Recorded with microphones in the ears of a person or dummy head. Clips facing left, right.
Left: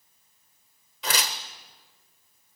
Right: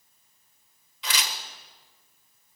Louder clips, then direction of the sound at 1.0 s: Left 4 dB; 40° left (ahead or behind).